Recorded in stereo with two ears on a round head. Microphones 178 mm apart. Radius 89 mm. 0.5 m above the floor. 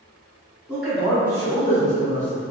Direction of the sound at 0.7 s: 10° right (ahead or behind).